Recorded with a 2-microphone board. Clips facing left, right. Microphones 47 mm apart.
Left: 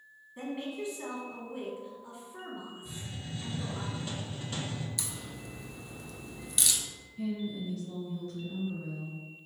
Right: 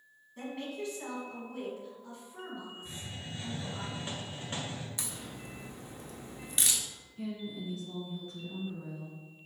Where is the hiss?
30° right (ahead or behind), 1.1 m.